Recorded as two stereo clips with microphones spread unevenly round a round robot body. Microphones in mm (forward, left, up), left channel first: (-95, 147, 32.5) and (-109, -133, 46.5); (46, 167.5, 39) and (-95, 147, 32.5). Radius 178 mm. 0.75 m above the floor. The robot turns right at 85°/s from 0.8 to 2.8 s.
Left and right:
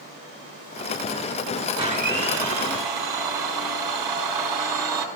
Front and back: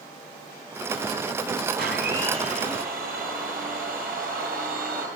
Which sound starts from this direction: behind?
A blender, at 1.8 s.